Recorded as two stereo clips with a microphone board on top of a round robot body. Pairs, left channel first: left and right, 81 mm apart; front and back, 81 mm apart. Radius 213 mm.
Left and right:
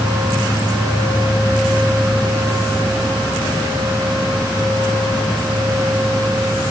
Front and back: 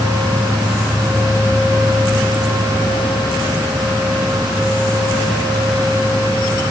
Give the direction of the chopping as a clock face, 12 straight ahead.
I don't hear chopping.